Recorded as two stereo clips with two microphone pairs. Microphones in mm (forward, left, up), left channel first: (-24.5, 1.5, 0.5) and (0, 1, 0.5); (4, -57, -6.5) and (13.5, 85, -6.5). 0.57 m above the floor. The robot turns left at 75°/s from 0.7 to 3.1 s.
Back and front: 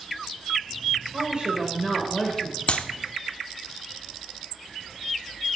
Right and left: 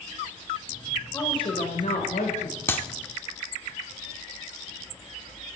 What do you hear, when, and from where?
1.1 s a woman speaking: 30° right, 2 m; by 2.6 s 135° right, 2 m
2.7 s a clap: 165° right, 0.8 m; by 2.9 s straight behind, 0.8 m